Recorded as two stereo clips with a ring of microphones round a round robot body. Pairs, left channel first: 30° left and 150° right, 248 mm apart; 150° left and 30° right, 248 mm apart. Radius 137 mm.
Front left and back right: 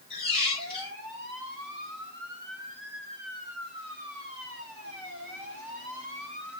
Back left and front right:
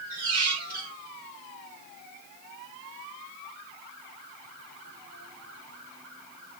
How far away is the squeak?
About 1.7 m.